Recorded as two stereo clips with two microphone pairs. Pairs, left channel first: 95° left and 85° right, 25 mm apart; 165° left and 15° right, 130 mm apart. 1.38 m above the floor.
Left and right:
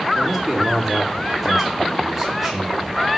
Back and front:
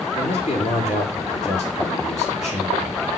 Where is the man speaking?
170° right, 4 m.